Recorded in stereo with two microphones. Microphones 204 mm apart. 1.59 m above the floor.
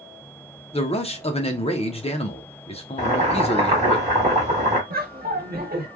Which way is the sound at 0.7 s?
30° left (ahead or behind).